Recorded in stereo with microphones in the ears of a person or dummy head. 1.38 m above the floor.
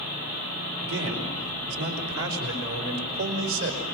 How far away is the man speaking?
About 4.5 m.